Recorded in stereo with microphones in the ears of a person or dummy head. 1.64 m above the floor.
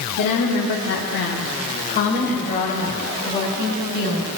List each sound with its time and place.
0.2 s a woman speaking: 55° left (ahead or behind), 1.1 m; by 4.3 s 25° left (ahead or behind), 4 m